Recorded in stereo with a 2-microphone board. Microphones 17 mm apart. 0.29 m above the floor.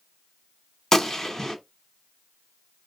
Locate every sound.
0.9 s a gunshot: 30° left (ahead or behind), 0.9 m